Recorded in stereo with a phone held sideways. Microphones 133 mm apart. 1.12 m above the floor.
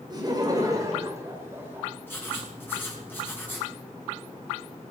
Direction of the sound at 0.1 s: 30° right (ahead or behind).